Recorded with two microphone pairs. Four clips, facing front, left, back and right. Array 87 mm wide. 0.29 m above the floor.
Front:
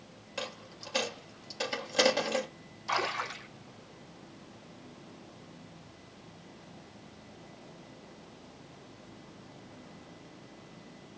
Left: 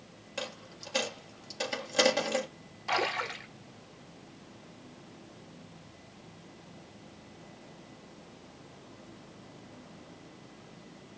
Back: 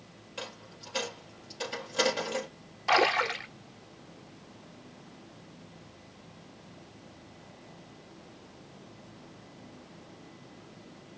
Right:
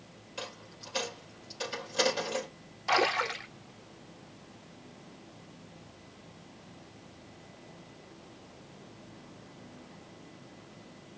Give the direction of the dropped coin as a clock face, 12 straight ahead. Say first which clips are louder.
Left 3 dB, front 2 dB; 10 o'clock.